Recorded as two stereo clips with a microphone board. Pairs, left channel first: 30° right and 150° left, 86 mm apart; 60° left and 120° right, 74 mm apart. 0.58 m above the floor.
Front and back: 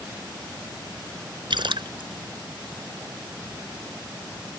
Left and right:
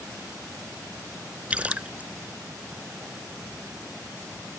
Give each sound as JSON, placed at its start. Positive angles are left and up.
{"t": 1.5, "sound": "a splash", "azimuth_deg": 165}